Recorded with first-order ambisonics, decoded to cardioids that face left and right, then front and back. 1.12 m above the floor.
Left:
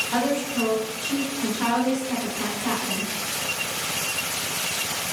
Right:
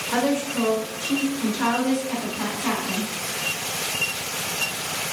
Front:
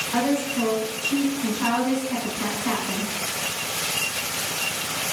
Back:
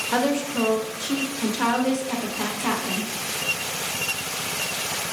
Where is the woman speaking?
165° right, 0.8 m.